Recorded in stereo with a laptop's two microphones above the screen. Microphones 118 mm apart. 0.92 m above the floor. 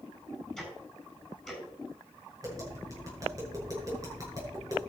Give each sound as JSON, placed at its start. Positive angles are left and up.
{"t": 0.6, "sound": "ticking", "side_deg": 0, "distance_m": 7.0}
{"t": 2.4, "sound": "tapping", "side_deg": -30, "distance_m": 7.5}